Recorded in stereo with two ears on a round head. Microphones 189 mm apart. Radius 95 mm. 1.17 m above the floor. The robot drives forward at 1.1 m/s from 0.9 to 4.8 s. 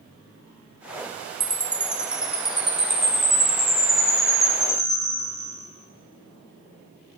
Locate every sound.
1.4 s a chime: 10° right (ahead or behind), 0.5 m; by 5.6 s centre (ahead or behind), 4 m